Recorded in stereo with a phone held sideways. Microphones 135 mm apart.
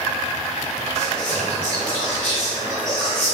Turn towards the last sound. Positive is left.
turn(degrees=15)  # may be behind; listen again after turning